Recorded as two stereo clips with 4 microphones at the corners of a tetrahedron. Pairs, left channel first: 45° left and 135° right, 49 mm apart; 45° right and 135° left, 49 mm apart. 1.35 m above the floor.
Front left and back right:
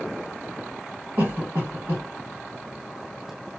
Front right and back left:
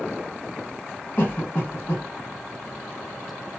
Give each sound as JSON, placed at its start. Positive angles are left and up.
{"t": 1.2, "sound": "a cough", "azimuth_deg": -90, "distance_m": 1.7}